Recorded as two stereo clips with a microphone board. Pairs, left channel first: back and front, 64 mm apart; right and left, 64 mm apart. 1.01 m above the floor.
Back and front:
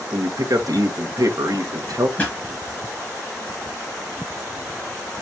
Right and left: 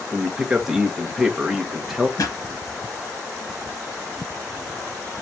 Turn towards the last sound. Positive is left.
turn(degrees=-110)